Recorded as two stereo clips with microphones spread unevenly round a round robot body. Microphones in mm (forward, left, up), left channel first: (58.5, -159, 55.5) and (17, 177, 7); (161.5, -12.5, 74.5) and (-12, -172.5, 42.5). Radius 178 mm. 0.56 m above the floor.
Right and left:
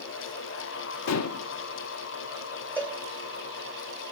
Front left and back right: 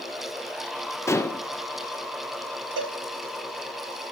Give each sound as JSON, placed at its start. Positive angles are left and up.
{"t": 1.1, "sound": "dishes clattering", "azimuth_deg": -40, "distance_m": 0.7}
{"t": 2.8, "sound": "a cowbell", "azimuth_deg": -170, "distance_m": 2.0}